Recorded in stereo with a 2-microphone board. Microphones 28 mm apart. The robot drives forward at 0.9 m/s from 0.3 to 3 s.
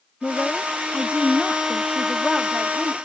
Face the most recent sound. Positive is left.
turn(degrees=15)  # may be behind; listen again after turning